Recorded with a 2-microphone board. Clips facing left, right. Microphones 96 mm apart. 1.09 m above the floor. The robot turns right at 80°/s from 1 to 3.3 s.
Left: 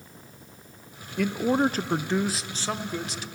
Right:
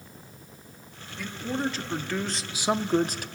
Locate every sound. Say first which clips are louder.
1.2 s a man speaking: left 8 dB; 80° left, 0.5 m; by 3.2 s 110° right, 0.5 m